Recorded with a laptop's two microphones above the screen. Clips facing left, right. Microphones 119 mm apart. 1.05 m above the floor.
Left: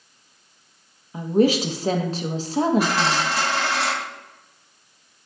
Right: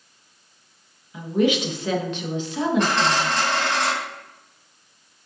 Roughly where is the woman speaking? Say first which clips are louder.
Left 2 dB; left.